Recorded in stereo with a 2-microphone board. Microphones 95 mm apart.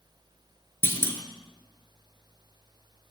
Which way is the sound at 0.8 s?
25° left (ahead or behind).